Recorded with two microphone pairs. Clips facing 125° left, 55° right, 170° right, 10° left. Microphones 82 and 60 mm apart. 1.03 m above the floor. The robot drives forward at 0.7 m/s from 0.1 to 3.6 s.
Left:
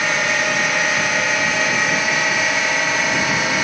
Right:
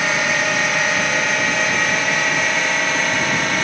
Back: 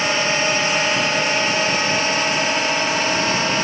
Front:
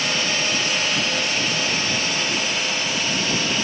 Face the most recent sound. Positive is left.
turn(degrees=-155)